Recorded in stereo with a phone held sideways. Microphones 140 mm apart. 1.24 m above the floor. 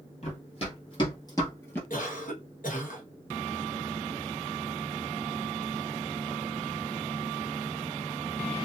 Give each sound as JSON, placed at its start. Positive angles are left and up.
{"t": 0.2, "sound": "running footsteps", "side_deg": 50, "distance_m": 1.8}
{"t": 1.9, "sound": "a cough", "side_deg": 70, "distance_m": 1.2}